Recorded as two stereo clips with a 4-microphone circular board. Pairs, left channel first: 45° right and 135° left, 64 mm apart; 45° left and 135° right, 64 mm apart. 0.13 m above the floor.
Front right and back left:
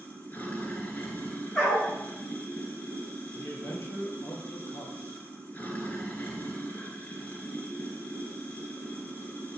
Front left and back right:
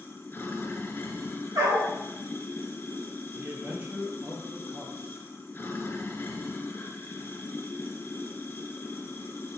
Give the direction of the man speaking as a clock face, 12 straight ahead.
3 o'clock.